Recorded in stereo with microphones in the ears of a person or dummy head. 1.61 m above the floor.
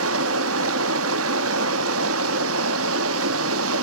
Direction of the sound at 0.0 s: 80° right.